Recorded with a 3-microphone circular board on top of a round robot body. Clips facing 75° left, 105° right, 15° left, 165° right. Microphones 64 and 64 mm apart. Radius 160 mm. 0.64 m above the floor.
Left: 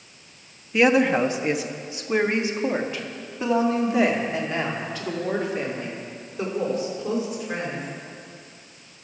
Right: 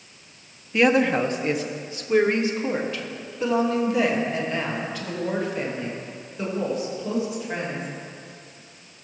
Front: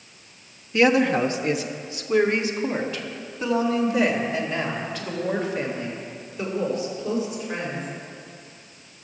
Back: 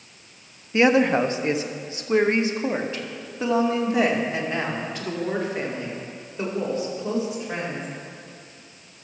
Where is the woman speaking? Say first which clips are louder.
Left 1 dB, back 1 dB; 160° left, 1.0 m; by 7.9 s 135° left, 4 m.